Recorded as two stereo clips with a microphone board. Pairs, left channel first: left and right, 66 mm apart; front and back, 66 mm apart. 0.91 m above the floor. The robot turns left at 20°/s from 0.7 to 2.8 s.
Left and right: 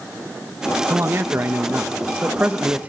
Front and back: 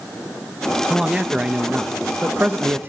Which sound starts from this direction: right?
A man speaking, at 0.9 s.